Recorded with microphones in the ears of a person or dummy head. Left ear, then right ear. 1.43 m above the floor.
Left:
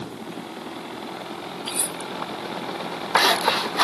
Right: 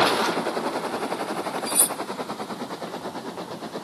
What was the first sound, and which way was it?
Cutlery clinking, 10° right (ahead or behind).